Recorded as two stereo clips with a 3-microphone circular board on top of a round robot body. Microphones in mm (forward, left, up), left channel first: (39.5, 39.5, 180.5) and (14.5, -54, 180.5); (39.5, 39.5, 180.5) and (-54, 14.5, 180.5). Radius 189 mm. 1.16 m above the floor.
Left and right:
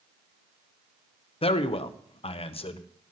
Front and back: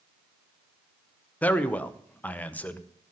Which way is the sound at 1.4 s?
90° left.